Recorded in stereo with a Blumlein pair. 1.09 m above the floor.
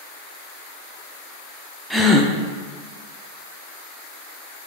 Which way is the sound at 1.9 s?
Straight ahead.